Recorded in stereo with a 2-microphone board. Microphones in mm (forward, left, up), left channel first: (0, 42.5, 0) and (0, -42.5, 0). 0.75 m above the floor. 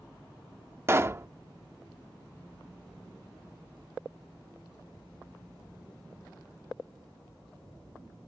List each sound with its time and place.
0.9 s a pop: 30° right (ahead or behind)